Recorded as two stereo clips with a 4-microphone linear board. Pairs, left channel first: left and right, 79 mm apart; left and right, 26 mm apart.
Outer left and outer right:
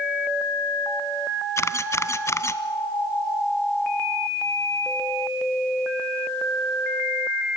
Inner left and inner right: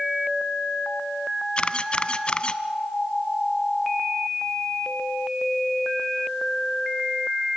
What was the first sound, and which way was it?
A camera shutter, 35° left (ahead or behind).